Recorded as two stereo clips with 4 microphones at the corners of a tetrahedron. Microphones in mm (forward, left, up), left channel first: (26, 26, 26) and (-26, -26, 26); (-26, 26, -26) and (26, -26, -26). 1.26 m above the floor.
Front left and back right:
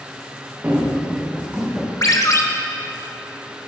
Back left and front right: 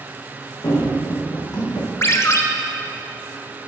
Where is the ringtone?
85° left, 0.8 m.